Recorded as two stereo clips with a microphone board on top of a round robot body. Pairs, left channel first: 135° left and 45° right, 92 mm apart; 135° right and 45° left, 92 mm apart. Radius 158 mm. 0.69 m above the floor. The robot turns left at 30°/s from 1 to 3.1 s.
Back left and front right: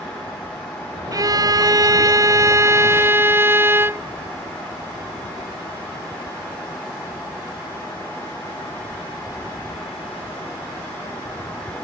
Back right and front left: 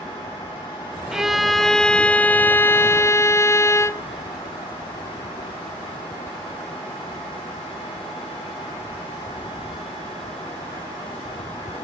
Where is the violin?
35° right, 0.9 m; by 4.0 s 95° right, 0.9 m.